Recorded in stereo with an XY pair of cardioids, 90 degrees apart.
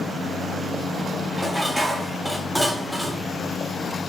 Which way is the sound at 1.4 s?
5° right.